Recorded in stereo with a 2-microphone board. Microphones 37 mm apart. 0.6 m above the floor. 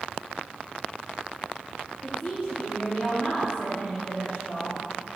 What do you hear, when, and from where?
2.0 s a woman speaking: 40° left (ahead or behind), 1.0 m